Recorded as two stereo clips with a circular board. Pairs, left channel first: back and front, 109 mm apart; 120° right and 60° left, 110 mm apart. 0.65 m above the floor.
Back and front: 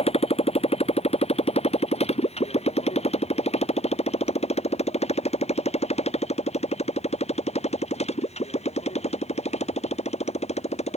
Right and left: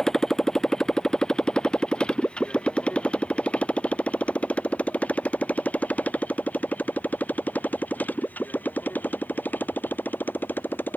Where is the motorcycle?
155° left; by 11.0 s 165° left.